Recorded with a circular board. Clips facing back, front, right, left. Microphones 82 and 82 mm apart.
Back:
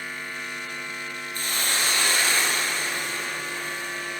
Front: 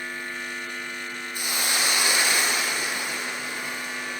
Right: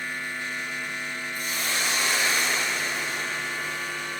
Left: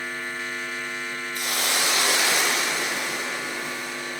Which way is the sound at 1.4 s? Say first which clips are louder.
Even, left 4 dB; 75° left.